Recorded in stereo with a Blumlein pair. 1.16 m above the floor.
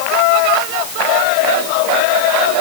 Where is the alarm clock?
I don't hear an alarm clock.